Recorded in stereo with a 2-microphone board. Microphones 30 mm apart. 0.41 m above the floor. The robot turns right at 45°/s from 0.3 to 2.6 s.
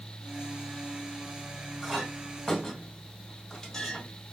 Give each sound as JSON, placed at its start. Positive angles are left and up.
{"t": 1.8, "sound": "a clink", "side_deg": -10, "distance_m": 2.5}